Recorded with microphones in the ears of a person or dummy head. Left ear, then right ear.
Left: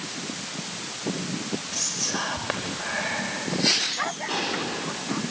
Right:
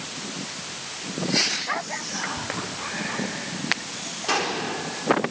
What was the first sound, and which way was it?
Whispering, 35° left (ahead or behind).